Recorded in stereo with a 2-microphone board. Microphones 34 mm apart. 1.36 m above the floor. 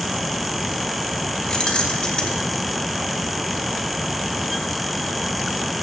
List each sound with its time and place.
1.5 s keys jangling: 25° left (ahead or behind), 1.5 m